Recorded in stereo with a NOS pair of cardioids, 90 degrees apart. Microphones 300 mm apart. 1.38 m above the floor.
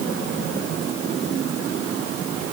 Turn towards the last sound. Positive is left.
No sound to turn to.